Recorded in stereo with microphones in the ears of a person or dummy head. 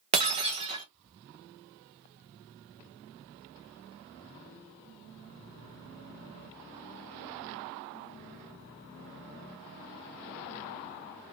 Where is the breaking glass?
25° right (ahead or behind), 0.5 m.